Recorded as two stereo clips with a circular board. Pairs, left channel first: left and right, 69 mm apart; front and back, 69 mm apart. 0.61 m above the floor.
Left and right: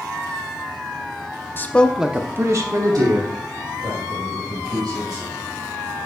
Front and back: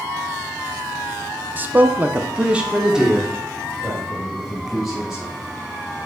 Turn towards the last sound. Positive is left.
turn(degrees=-90)